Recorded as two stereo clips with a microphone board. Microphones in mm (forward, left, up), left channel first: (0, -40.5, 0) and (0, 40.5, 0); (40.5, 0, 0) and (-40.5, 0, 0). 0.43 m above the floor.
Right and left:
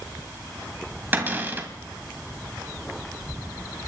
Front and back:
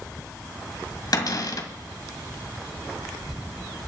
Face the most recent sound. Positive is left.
turn(degrees=25)